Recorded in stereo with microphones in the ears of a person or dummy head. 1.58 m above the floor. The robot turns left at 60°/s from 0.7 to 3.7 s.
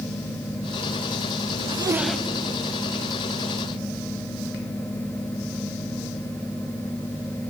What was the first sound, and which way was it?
A zipper, 150° right.